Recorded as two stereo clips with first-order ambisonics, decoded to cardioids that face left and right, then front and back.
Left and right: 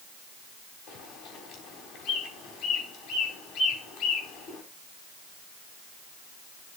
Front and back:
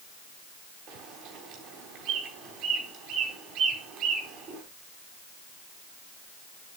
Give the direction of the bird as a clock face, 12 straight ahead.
7 o'clock.